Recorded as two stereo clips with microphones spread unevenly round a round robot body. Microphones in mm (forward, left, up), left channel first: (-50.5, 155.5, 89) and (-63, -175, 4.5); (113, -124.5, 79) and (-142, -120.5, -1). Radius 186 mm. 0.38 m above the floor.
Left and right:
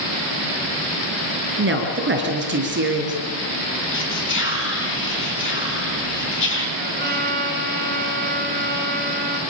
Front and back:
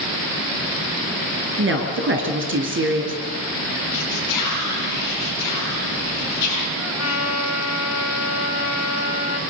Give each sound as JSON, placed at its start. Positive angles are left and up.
{"t": 1.6, "sound": "a woman speaking", "azimuth_deg": -145, "distance_m": 5.0}
{"t": 3.9, "sound": "whispering", "azimuth_deg": 25, "distance_m": 5.0}
{"t": 6.8, "sound": "a trumpet", "azimuth_deg": -30, "distance_m": 4.0}